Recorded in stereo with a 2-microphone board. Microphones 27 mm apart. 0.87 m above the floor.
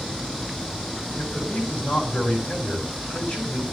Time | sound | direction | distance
1.2 | a man speaking | 35° left (ahead or behind) | 6.5 m